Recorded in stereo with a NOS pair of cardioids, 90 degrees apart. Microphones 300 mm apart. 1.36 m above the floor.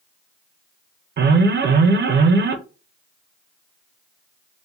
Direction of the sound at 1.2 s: 40° right.